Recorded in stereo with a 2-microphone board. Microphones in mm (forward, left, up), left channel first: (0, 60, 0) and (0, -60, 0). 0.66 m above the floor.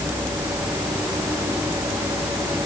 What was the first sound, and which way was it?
Only background noise.